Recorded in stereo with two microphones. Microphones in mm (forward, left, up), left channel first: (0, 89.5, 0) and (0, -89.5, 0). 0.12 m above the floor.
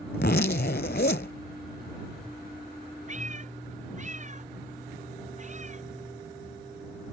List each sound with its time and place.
0.1 s a zipper: 70° left (ahead or behind)
3.1 s a cat meowing: 45° right (ahead or behind)